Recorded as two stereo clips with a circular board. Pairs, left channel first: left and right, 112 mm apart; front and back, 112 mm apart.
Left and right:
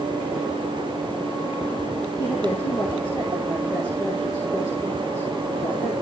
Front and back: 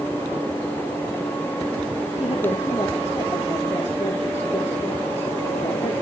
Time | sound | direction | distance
2.2 | a woman speaking | 45° left | 3.5 m